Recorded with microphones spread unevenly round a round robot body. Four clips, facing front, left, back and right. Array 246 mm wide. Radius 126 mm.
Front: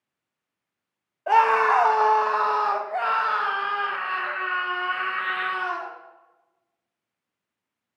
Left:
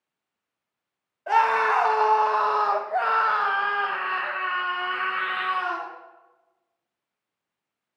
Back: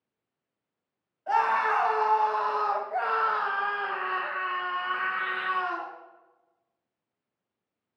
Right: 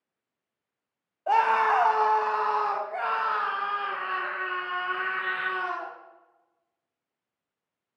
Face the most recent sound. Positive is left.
turn(degrees=100)